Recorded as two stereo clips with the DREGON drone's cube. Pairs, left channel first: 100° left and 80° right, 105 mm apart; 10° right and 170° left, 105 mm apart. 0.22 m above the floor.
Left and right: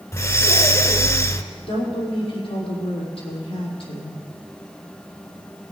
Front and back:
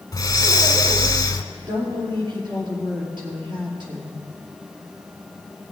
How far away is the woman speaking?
About 5 m.